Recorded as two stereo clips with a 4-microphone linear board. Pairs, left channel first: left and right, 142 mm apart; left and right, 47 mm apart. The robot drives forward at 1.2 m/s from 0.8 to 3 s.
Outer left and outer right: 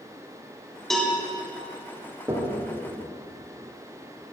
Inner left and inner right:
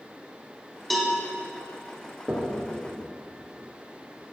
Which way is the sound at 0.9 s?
Centre (ahead or behind).